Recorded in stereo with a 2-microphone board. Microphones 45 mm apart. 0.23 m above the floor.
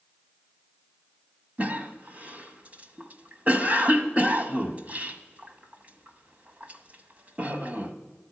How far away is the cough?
About 1.2 m.